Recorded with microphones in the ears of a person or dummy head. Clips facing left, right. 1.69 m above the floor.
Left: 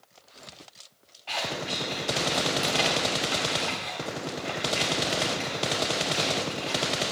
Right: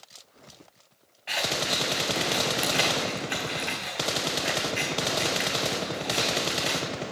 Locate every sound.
1.3 s scissors: 25° right (ahead or behind), 3 m